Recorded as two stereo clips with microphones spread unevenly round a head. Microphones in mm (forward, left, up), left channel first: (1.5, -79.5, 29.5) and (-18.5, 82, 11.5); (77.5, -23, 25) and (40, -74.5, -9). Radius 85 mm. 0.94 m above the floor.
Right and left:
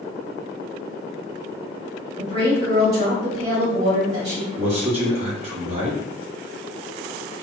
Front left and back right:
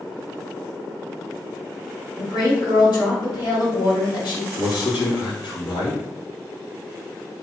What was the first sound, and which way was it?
A woman speaking, 60° left.